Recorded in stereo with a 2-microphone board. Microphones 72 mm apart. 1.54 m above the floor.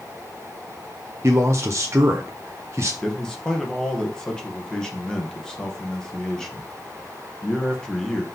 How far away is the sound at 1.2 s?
About 0.9 m.